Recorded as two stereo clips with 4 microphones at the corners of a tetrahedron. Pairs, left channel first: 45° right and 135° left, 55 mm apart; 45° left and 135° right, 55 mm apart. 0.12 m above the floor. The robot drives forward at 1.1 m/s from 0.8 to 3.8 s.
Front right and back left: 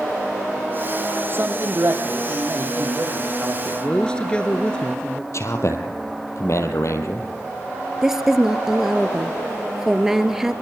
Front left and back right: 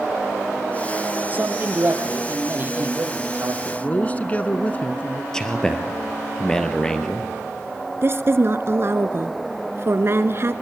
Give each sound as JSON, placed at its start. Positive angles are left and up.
{"t": 1.3, "sound": "a man speaking", "azimuth_deg": 170, "distance_m": 3.5}
{"t": 3.6, "sound": "a man speaking", "azimuth_deg": 5, "distance_m": 1.4}
{"t": 5.3, "sound": "a man speaking", "azimuth_deg": -35, "distance_m": 3.0}
{"t": 8.0, "sound": "a woman speaking", "azimuth_deg": -145, "distance_m": 1.5}